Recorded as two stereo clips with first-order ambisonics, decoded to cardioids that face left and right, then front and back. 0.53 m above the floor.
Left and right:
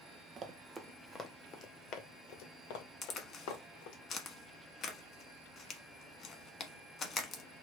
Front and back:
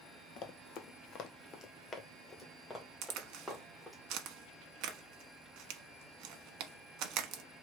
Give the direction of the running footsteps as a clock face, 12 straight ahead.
1 o'clock.